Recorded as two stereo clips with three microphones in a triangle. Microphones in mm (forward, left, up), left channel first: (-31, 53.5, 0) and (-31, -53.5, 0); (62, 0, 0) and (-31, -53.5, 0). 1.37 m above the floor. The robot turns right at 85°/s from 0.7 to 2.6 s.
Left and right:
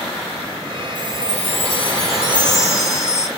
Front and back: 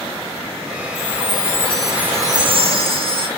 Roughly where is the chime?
Ahead left.